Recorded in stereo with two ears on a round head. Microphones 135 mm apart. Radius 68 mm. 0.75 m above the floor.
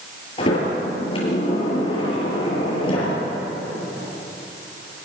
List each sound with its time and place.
0.4 s a sliding door: 35° left (ahead or behind), 7 m